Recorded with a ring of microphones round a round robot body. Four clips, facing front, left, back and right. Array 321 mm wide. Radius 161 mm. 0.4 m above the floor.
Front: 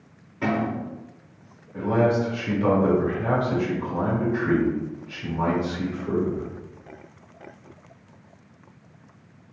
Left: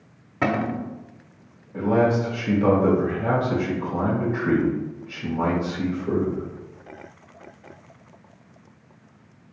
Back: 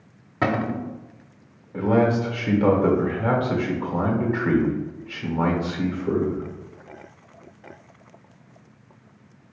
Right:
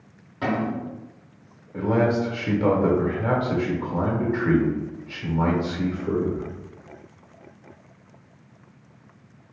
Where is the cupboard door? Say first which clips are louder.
Left 2 dB, back 1 dB; 150° left, 0.5 m.